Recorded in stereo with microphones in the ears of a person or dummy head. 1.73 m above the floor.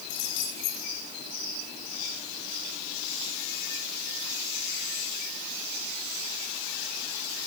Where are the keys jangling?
65° left (ahead or behind), 5.5 m.